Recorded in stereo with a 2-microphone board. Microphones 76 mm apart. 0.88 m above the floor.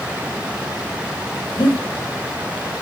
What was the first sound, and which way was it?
Breathing, 85° left.